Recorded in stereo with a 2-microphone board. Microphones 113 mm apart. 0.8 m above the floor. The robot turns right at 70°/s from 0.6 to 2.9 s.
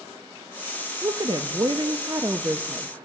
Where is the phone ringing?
No phone ringing in this recording.